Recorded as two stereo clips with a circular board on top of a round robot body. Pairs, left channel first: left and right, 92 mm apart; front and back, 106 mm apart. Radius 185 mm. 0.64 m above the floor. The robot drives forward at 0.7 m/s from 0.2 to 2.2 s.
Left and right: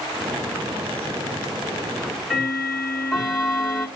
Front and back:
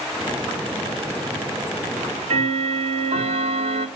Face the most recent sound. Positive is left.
turn(degrees=180)